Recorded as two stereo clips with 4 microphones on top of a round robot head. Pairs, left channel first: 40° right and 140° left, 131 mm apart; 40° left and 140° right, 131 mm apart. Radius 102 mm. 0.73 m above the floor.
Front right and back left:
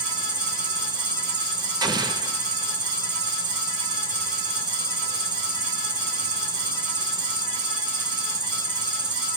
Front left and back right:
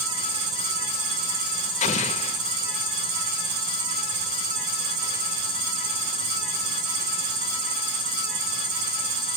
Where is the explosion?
75° left, 1.7 m.